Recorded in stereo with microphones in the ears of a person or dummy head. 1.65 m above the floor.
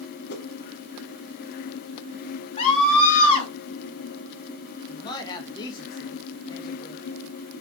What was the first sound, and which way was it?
A whoosh, 60° left (ahead or behind).